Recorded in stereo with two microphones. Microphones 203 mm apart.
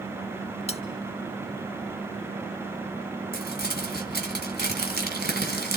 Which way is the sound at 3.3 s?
55° right (ahead or behind).